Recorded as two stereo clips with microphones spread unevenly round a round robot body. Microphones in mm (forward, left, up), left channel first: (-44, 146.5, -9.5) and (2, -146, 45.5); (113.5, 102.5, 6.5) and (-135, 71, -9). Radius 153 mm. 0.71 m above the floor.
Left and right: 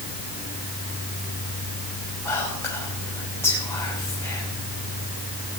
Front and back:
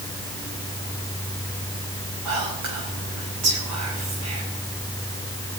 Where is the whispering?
Straight behind, 4.5 m.